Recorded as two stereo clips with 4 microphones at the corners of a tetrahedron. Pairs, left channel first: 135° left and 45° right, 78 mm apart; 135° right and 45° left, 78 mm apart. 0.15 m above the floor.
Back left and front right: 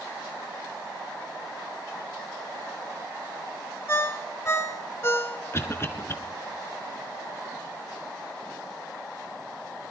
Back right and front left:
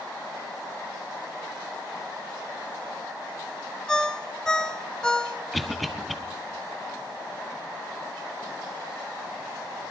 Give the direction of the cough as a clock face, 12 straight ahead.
7 o'clock.